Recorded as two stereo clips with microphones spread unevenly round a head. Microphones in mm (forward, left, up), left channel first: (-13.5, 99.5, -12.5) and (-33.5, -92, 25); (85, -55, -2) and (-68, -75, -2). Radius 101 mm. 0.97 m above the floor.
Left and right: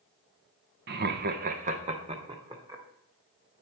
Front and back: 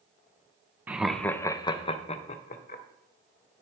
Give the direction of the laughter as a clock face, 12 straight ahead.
3 o'clock.